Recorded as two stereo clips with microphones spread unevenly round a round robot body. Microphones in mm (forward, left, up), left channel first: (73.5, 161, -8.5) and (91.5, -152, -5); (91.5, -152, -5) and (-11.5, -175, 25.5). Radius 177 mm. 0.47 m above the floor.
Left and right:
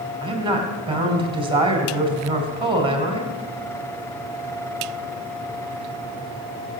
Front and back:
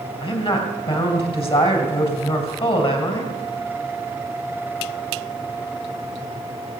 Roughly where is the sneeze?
No sneeze in this recording.